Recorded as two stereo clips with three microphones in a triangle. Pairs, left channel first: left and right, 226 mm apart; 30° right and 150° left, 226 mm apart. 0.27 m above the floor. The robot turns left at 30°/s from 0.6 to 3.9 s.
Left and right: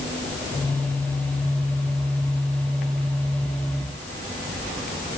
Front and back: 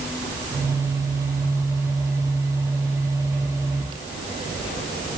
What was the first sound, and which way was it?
Only background noise.